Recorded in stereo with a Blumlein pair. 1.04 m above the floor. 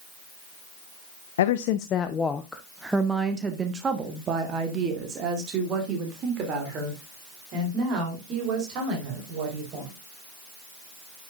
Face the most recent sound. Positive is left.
turn(degrees=-40)